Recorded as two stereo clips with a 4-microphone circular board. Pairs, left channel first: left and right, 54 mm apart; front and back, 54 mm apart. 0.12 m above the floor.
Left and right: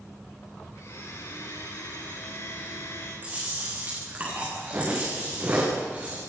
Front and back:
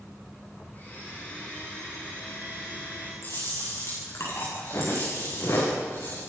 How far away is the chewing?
About 8.5 m.